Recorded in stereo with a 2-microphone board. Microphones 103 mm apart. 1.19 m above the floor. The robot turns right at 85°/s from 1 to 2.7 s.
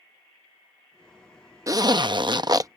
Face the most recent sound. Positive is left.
turn(degrees=-45)